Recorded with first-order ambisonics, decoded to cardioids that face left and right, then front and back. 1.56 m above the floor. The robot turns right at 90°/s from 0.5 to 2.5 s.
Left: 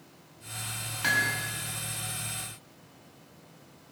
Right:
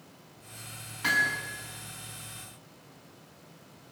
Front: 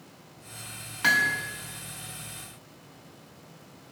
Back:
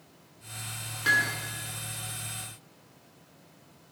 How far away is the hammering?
About 5.5 m.